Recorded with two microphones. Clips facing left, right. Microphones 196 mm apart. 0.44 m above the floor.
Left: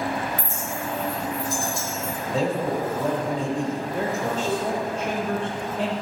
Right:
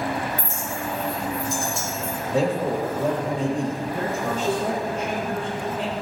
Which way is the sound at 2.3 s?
15° right (ahead or behind).